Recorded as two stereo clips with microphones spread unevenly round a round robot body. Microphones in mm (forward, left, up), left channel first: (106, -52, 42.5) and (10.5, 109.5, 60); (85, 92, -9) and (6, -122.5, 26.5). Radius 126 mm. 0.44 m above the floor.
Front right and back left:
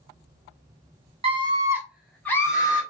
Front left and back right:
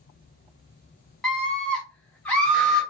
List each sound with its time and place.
1.2 s a scream: 135° left, 0.9 m; by 2.8 s 5° right, 1.2 m